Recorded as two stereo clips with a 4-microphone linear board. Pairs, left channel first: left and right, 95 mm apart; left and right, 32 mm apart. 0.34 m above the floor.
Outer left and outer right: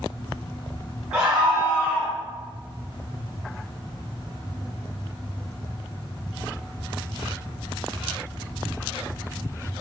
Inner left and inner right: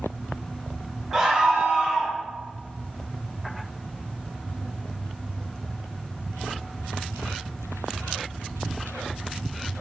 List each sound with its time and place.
1.1 s a scream: 10° right (ahead or behind), 1.8 m; by 2.2 s 20° right (ahead or behind), 1.6 m